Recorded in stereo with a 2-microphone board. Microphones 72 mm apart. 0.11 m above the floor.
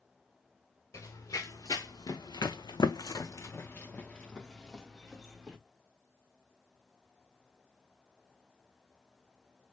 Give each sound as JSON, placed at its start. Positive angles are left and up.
{"t": 0.9, "sound": "running footsteps", "side_deg": 50, "distance_m": 1.2}